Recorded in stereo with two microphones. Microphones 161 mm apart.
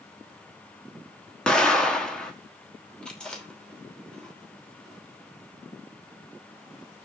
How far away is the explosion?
About 1.9 m.